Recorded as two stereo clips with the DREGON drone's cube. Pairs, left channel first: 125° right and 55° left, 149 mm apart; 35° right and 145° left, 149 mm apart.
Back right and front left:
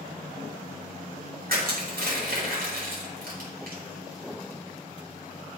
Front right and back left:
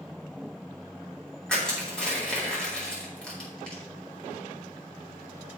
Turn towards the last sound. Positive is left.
turn(degrees=50)